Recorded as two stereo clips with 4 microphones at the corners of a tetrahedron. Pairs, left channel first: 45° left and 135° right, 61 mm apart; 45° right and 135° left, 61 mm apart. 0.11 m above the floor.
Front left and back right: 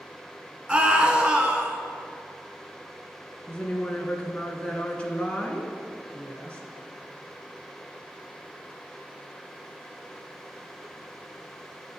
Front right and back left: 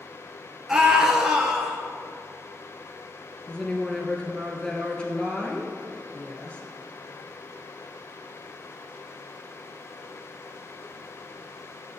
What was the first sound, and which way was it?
A scream, 160° right.